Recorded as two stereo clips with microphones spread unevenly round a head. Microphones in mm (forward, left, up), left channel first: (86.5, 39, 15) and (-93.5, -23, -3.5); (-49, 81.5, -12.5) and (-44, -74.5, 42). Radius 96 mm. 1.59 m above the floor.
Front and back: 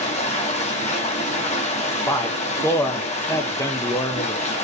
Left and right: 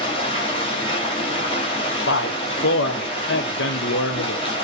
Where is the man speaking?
90° left, 0.7 m.